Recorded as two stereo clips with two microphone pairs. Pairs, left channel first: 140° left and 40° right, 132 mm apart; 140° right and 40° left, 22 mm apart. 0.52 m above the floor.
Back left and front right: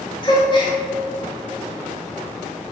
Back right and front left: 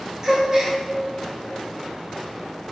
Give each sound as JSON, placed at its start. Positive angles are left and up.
{"t": 0.2, "sound": "a gasp", "azimuth_deg": 90, "distance_m": 1.8}